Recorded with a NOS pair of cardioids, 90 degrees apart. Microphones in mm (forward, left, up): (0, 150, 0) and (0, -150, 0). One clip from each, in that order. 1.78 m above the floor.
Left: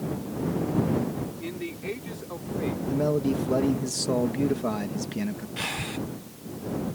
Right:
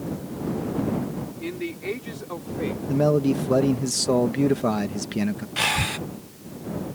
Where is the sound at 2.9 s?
35° right.